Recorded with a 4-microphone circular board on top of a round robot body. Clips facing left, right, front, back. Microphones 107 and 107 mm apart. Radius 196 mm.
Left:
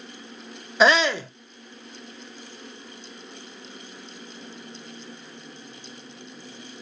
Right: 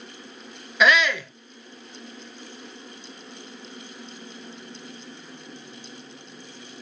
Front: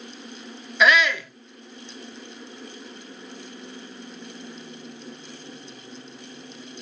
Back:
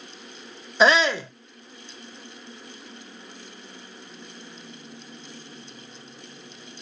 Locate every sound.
0.8 s a shout: 135° left, 0.5 m